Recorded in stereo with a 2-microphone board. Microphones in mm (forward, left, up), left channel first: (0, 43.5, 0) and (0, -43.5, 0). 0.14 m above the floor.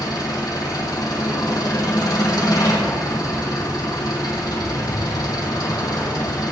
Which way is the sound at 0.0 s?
45° left (ahead or behind).